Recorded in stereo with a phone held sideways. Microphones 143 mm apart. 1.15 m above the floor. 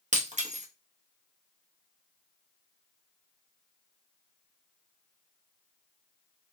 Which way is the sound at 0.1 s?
55° right (ahead or behind).